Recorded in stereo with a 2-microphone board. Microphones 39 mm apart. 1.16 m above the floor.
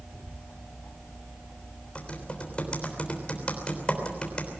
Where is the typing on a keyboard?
30° left (ahead or behind), 3.5 m.